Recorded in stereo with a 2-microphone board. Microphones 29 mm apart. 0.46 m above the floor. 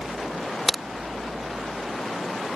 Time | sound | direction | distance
0.7 | a crack | 10° left (ahead or behind) | ?